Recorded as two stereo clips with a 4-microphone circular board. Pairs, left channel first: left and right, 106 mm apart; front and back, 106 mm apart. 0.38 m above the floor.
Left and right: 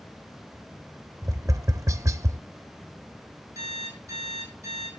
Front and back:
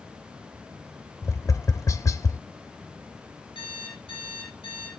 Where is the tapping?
45° right, 0.7 m.